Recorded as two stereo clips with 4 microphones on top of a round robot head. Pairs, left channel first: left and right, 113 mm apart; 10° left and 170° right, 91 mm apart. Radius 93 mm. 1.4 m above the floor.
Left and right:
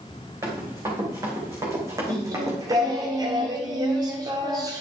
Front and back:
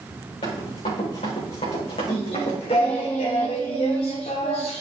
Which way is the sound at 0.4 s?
25° right.